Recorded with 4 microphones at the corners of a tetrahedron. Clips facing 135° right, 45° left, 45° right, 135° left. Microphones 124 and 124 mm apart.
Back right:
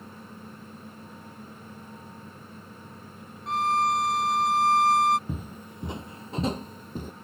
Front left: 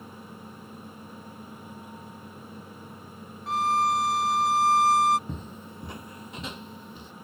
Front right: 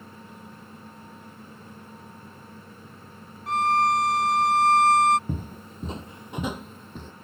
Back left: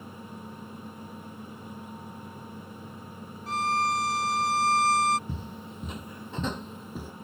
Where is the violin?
45° right.